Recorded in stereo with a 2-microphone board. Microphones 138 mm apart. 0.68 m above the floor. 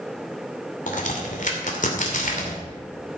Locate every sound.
0.9 s a crack: 70° left (ahead or behind), 2.5 m